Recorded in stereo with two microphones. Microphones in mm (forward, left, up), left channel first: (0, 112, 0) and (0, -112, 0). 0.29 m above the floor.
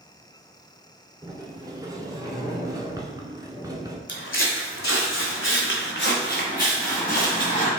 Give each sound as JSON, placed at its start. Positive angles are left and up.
{"t": 1.2, "sound": "a sliding door", "side_deg": -15, "distance_m": 0.6}
{"t": 4.1, "sound": "footsteps", "side_deg": 55, "distance_m": 0.9}